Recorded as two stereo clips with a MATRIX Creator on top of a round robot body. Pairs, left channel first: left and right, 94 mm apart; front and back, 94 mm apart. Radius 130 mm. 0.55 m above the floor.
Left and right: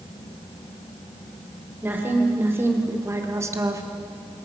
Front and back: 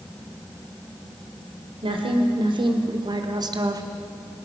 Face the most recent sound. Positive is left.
turn(degrees=-140)